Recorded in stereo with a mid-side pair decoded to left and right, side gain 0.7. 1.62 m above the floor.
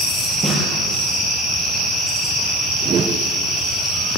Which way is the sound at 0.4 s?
10° right.